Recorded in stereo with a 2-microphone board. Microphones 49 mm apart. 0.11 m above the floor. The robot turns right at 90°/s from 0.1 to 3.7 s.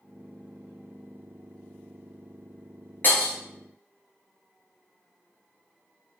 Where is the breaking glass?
45° left (ahead or behind), 1.1 m; by 3.3 s 35° left (ahead or behind), 1.1 m.